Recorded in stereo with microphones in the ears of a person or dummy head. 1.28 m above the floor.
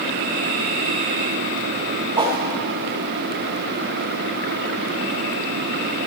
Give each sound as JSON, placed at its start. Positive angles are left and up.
{"t": 2.2, "sound": "a whoosh", "side_deg": -25, "distance_m": 1.2}